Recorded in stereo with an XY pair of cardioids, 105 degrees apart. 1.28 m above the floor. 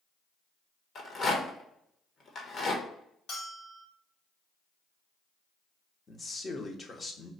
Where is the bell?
70° left, 2.5 m.